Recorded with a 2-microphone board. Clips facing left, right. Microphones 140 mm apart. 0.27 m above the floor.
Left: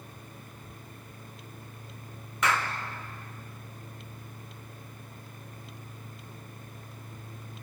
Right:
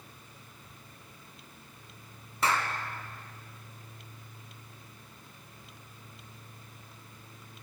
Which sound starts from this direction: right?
A clap, at 2.4 s.